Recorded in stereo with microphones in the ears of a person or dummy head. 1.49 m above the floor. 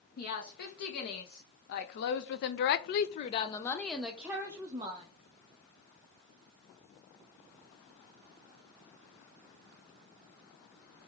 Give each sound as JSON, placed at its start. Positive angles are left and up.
{"t": 0.2, "sound": "a woman speaking", "side_deg": 60, "distance_m": 1.8}